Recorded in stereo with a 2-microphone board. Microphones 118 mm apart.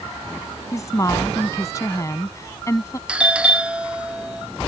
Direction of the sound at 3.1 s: 10° right (ahead or behind).